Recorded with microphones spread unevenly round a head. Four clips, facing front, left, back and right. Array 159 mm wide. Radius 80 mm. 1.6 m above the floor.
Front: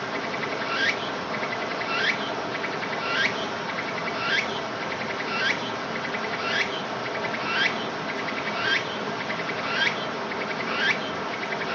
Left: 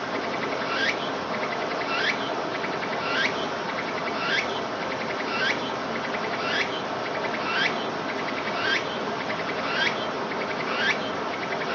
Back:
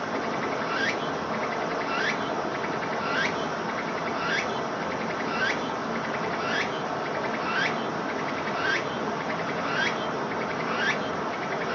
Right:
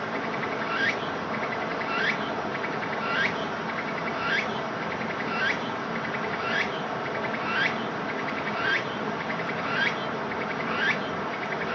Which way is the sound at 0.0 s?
130° left.